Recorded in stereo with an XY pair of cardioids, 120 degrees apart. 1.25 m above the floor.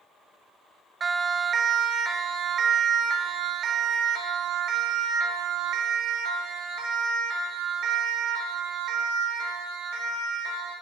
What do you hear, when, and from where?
1.0 s a siren: 40° right, 2.5 m; by 10.7 s 75° right, 8 m